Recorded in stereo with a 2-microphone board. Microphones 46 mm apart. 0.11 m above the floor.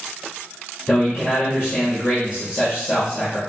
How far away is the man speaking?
About 2 m.